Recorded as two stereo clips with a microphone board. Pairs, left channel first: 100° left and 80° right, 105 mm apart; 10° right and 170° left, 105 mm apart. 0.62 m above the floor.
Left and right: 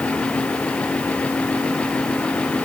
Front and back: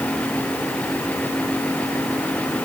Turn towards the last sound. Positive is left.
No sound to turn to.